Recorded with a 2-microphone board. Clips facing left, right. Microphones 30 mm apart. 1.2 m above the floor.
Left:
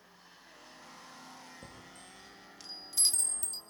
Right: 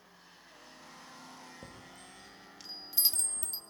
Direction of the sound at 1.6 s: 5° right (ahead or behind).